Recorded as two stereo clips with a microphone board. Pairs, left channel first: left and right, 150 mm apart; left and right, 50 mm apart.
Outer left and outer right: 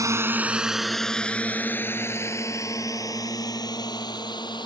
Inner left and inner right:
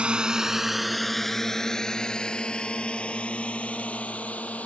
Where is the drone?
20° right (ahead or behind); by 4.7 s 30° left (ahead or behind).